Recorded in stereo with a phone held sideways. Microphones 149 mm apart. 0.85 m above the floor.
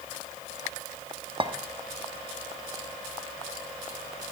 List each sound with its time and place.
1.4 s a clink: 35° right (ahead or behind), 1.1 m